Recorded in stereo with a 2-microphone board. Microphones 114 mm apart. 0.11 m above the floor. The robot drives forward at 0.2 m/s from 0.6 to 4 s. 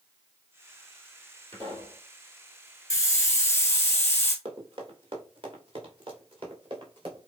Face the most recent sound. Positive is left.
turn(degrees=-50)  # may be behind; listen again after turning